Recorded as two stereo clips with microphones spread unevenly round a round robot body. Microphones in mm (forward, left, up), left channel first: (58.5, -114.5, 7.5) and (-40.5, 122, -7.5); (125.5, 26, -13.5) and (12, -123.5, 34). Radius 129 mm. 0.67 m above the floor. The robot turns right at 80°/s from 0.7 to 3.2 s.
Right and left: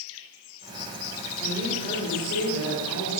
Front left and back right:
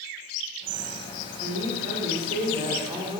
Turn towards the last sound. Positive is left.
turn(degrees=-15)